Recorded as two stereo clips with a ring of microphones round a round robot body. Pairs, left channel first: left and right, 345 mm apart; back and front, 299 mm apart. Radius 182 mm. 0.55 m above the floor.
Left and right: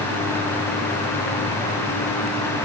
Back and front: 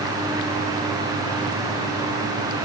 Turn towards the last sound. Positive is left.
No sound to turn to.